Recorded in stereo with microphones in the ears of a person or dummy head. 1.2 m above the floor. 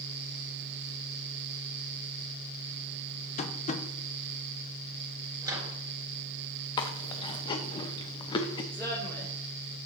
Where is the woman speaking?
15° left (ahead or behind), 3 m.